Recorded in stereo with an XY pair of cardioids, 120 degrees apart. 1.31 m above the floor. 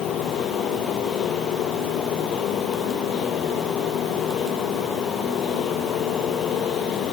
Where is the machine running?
60° left.